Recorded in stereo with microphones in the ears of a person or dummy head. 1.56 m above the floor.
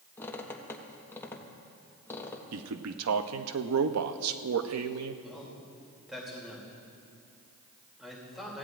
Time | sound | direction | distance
0.2 | a squeak | 15° left (ahead or behind) | 1.3 m
2.5 | a man speaking | 85° right | 0.7 m
5.2 | a man speaking | 5° right (ahead or behind) | 3 m